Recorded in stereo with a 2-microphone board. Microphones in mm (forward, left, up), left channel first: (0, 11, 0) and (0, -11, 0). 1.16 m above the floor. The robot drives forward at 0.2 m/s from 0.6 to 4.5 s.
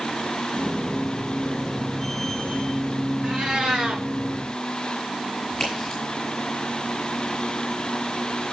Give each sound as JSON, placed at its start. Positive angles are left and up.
{"t": 3.2, "sound": "a cat meowing", "side_deg": -60, "distance_m": 2.5}
{"t": 5.5, "sound": "a crack", "side_deg": 20, "distance_m": 8.5}